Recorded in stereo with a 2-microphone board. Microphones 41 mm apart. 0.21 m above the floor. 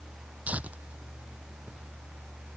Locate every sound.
0.5 s tearing paper: 40° right (ahead or behind)